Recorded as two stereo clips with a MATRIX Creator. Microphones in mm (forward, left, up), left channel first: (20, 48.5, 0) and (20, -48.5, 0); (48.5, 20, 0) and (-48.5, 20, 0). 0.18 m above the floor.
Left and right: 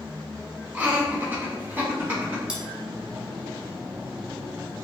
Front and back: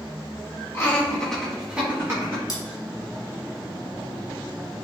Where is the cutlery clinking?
15° right, 1.0 m.